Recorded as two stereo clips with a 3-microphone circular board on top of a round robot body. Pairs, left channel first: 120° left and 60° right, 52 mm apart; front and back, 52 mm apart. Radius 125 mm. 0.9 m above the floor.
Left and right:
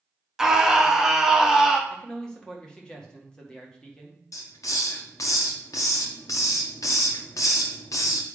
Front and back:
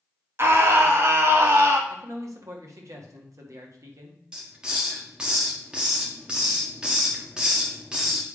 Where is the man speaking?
165° right, 1.7 m.